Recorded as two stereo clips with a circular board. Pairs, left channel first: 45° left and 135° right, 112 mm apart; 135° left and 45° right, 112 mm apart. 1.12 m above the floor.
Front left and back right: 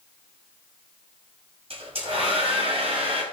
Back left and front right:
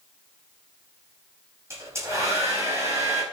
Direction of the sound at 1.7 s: 110° right.